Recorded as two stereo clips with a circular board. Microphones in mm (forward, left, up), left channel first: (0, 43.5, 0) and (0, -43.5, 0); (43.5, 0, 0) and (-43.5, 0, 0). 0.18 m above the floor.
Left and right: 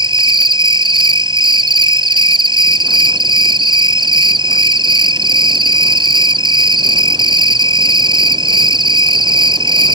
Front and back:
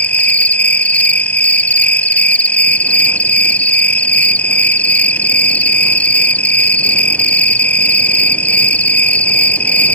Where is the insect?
70° right.